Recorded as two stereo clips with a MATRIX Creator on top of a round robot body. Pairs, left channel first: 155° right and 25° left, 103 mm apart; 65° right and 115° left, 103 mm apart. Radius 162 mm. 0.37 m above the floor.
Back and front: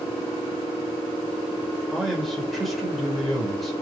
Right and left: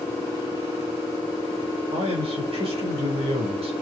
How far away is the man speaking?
About 4.5 m.